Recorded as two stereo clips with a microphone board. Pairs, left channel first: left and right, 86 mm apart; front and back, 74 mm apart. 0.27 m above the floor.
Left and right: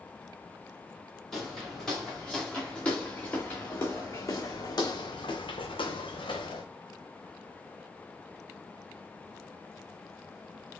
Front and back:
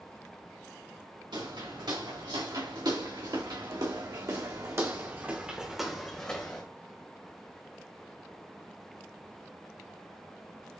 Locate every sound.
1.3 s footsteps: 175° left, 2 m; by 6.7 s 70° left, 1.0 m